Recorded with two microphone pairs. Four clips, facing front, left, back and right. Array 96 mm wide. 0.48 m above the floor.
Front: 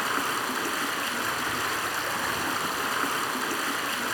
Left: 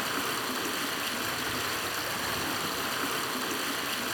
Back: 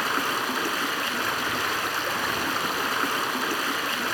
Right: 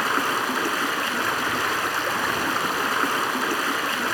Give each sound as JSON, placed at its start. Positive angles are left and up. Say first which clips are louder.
{"t": 0.0, "sound": "running water", "louder": "right 9 dB, back 2 dB", "azimuth_deg": -100, "distance_m": 1.1}